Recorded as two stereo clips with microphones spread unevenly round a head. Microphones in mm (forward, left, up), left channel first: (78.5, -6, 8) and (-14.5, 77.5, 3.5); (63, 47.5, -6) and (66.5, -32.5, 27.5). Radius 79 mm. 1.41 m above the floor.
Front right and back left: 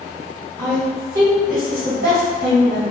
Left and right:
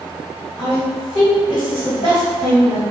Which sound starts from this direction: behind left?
A woman speaking, at 0.6 s.